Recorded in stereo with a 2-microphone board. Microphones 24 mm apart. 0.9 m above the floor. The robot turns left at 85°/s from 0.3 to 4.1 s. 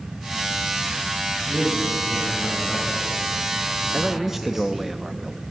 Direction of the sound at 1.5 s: 150° right.